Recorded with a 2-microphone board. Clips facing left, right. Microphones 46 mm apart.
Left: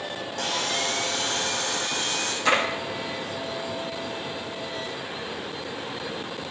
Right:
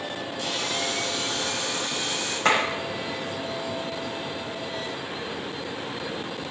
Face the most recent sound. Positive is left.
turn(degrees=-40)  # may be behind; listen again after turning